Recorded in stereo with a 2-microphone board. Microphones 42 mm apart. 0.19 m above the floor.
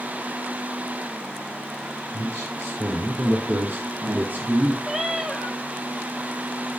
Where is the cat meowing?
15° right (ahead or behind), 1.4 m.